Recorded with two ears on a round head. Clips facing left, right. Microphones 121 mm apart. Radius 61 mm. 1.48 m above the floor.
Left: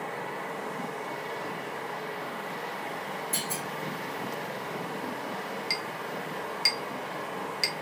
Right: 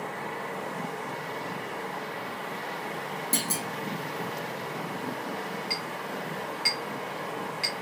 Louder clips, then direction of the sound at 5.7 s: Right 1 dB; 50° left (ahead or behind).